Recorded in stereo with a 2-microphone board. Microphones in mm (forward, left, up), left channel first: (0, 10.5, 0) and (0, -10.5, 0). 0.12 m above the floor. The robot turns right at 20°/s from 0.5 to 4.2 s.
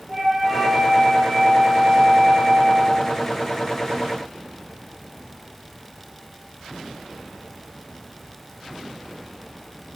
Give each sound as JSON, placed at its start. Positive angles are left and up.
{"t": 0.1, "sound": "a flute", "azimuth_deg": -155, "distance_m": 1.9}